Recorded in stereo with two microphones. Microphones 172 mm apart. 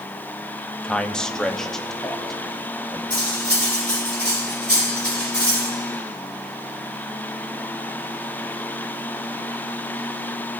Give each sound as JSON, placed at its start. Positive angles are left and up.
{"t": 0.8, "sound": "a man speaking", "side_deg": 5, "distance_m": 0.8}
{"t": 3.1, "sound": "cutlery clinking", "side_deg": -80, "distance_m": 5.0}